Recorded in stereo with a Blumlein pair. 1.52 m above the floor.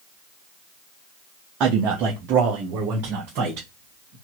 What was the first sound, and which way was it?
A man speaking, 30° right.